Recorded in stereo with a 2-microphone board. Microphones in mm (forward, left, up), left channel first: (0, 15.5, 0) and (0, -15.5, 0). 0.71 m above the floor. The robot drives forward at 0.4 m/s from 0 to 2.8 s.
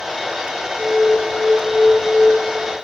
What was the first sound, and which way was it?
An alarm, 15° left (ahead or behind).